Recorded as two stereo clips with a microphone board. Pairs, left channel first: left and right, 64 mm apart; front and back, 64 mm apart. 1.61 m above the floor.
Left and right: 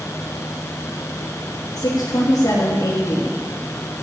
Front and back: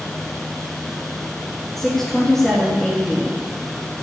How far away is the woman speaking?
About 3 m.